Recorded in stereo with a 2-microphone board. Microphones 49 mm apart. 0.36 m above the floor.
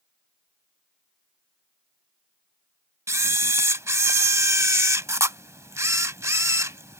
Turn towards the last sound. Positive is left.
turn(degrees=-80)